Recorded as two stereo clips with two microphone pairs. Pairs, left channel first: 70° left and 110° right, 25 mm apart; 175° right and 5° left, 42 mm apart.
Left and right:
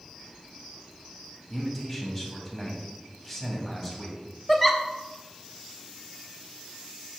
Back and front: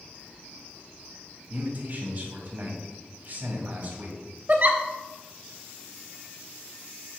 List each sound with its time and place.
1.5 s a man speaking: 15° right, 1.8 m
4.5 s a giggle: 15° right, 0.6 m